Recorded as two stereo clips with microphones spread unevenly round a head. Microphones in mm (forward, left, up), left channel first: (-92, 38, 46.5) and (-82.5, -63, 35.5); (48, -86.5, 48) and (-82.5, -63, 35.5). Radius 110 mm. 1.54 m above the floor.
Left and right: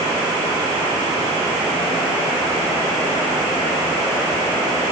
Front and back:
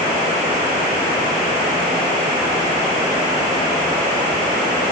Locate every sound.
Only background noise.